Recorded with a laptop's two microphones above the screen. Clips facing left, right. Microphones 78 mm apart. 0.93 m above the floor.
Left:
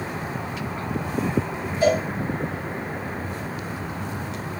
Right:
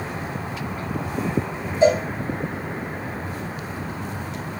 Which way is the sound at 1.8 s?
25° right (ahead or behind).